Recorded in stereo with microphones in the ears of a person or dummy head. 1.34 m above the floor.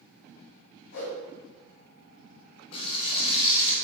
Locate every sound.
0.9 s a whoosh: 65° left (ahead or behind), 2.5 m
2.7 s frying: 30° left (ahead or behind), 2.5 m